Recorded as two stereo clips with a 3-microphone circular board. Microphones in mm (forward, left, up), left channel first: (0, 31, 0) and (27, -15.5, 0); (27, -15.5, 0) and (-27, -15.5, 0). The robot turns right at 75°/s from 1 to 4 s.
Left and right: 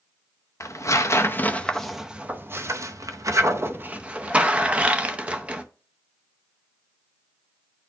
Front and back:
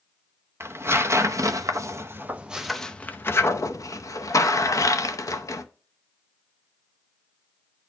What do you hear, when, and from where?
0.6 s tearing paper: 140° left, 0.6 m; by 5.6 s 5° left, 0.6 m